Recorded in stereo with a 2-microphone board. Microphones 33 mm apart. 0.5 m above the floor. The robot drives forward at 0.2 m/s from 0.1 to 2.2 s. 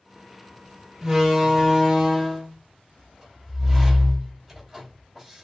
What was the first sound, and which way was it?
A door slam, 15° right (ahead or behind).